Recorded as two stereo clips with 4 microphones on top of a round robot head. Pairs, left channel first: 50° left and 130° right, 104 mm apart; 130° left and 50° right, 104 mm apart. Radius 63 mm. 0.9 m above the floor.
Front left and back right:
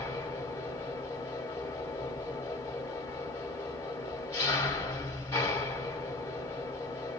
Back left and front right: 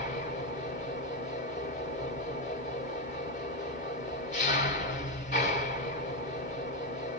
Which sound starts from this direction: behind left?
An engine running, at 0.0 s.